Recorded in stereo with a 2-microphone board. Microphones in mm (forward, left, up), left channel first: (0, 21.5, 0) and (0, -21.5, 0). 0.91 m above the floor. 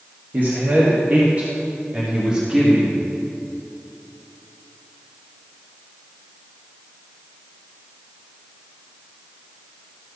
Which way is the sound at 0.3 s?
55° right (ahead or behind).